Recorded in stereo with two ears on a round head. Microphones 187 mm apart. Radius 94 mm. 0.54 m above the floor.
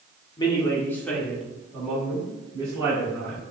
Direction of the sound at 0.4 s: 25° left (ahead or behind).